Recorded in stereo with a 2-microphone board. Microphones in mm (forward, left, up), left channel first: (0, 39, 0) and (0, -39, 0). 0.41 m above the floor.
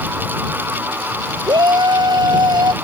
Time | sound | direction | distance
1.5 | a shout | 65° right (ahead or behind) | ?